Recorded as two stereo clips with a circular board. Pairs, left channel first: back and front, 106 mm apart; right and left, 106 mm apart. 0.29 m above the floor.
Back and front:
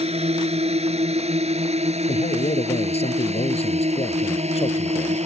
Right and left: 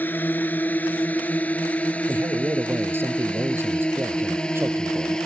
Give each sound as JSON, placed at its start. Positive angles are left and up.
{"t": 0.0, "sound": "a drone", "azimuth_deg": -15}
{"t": 2.1, "sound": "a man speaking", "azimuth_deg": 160}